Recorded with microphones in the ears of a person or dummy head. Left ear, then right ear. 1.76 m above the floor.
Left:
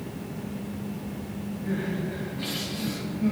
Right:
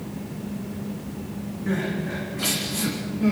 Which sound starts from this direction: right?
Crying, at 1.7 s.